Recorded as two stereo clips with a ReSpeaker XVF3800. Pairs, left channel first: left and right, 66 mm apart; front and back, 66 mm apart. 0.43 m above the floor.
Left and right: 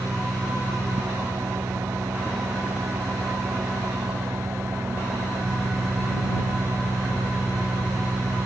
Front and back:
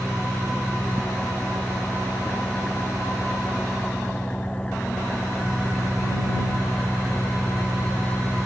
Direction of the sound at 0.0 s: 70° right.